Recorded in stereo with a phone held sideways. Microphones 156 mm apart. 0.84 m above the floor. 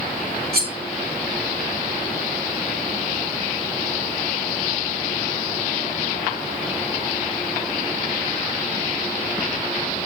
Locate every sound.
0.5 s cutlery clinking: 90° right, 4.5 m